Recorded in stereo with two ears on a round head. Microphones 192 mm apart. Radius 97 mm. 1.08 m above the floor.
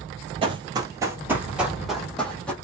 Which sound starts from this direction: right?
Running footsteps, at 0.4 s.